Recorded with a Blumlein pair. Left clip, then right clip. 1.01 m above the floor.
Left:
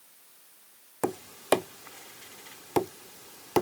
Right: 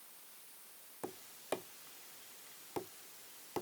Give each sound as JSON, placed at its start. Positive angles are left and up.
{"t": 1.0, "sound": "tapping", "azimuth_deg": 55}